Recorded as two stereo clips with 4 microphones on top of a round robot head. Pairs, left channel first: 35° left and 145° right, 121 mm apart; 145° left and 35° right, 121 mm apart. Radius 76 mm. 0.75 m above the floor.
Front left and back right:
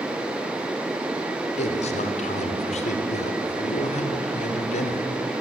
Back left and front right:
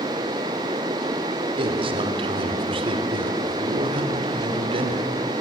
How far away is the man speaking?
About 3 m.